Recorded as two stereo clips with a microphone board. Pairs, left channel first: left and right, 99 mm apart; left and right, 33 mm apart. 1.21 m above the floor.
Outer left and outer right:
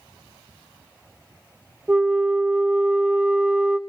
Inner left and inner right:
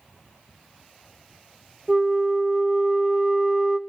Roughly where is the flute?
Centre.